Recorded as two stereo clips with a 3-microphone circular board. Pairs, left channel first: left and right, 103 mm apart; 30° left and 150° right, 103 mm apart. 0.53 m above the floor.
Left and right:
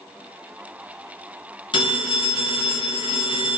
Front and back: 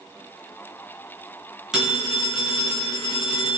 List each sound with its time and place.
1.7 s a phone ringing: 125° left, 3 m